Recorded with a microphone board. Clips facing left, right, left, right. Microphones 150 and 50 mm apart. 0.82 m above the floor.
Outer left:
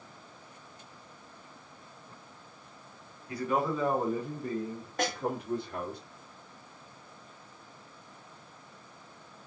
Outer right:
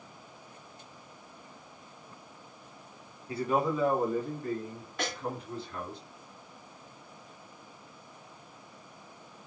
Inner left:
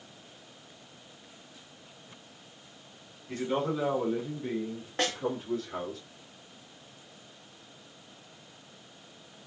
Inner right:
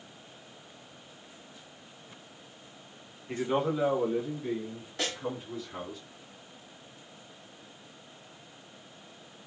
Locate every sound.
3.3 s a man speaking: 30° right (ahead or behind), 0.9 m; by 6.0 s 60° left (ahead or behind), 1.3 m
5.0 s a snare drum: 45° left (ahead or behind), 1.1 m